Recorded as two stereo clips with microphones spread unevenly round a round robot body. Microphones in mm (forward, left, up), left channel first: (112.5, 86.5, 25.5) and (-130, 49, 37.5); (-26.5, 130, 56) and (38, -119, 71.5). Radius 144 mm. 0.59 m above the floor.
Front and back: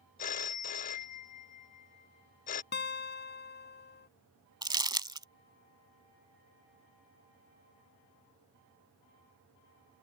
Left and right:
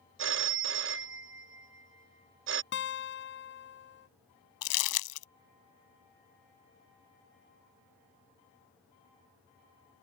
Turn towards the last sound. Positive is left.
turn(degrees=115)